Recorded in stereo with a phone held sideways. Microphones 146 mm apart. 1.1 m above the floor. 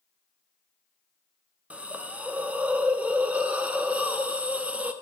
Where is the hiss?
10° right (ahead or behind), 0.6 m.